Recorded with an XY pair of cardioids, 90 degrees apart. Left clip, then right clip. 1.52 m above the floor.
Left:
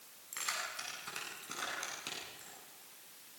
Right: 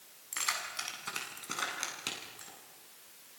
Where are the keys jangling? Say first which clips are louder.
Right 4 dB; 45° right, 8 m; by 2.5 s 50° right, 10.5 m.